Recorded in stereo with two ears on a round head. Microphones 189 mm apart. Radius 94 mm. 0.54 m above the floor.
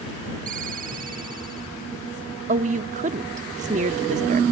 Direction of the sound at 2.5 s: 35° right (ahead or behind).